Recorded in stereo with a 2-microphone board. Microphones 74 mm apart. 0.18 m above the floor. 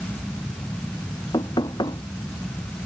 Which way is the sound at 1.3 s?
80° left.